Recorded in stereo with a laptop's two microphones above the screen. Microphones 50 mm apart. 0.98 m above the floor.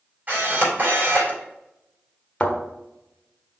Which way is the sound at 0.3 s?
40° right (ahead or behind).